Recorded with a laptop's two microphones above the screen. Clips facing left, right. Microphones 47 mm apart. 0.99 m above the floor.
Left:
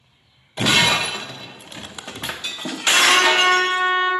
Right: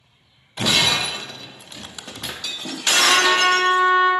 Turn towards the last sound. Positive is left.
turn(degrees=-5)  # may be behind; listen again after turning